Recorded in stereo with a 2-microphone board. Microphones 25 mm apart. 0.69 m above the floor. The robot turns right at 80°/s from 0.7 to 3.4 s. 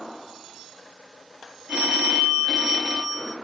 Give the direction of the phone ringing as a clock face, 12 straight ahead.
3 o'clock.